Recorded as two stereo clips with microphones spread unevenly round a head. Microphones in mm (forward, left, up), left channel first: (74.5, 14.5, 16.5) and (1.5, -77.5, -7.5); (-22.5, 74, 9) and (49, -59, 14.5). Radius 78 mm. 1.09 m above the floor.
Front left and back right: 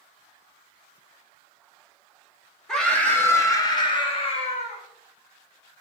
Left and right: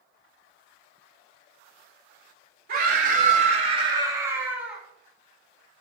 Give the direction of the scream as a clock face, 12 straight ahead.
1 o'clock.